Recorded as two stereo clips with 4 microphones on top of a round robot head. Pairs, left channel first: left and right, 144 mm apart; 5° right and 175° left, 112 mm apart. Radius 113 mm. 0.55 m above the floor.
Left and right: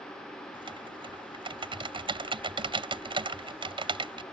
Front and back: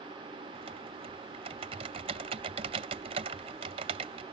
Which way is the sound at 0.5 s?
145° right.